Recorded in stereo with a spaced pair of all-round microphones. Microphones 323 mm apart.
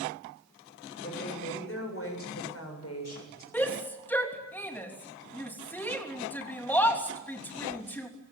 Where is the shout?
5° left (ahead or behind), 3 m.